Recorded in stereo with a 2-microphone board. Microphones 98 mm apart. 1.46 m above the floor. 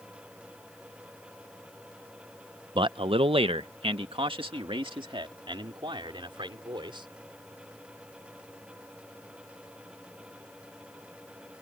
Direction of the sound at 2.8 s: 55° right (ahead or behind).